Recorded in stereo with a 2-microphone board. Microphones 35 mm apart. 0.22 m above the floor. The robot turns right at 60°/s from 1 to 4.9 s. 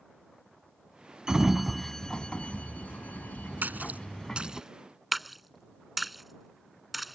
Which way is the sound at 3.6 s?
60° right (ahead or behind).